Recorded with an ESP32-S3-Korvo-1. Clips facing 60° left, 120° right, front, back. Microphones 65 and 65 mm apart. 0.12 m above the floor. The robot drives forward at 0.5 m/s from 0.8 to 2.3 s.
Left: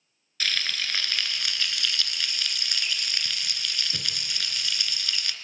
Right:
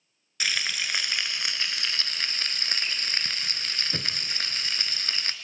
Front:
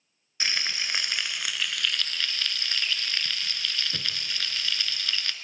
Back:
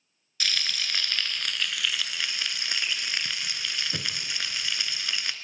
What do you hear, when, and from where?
0.4 s frying: 50° right, 1.1 m; by 5.3 s 115° right, 1.0 m